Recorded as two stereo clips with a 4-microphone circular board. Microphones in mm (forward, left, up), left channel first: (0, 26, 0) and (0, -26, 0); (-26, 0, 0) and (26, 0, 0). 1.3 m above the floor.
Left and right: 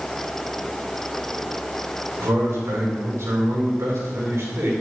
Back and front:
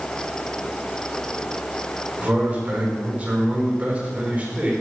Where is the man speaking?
65° right, 4.5 m.